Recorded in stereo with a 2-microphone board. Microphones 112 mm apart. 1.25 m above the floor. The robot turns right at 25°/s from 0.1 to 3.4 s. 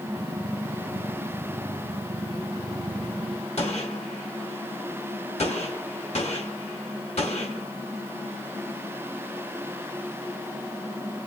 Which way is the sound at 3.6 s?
80° left.